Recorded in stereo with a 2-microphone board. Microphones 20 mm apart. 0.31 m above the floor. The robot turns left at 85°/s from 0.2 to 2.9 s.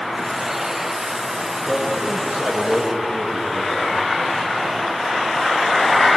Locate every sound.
1.7 s a man speaking: 70° right, 9.5 m; by 4.1 s 175° right, 9.5 m